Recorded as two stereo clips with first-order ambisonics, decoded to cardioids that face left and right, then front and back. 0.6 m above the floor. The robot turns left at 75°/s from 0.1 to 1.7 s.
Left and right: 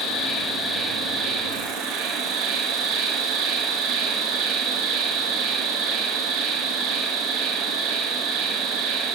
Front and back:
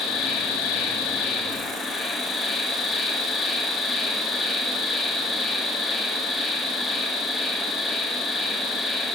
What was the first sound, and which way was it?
An insect, 55° left.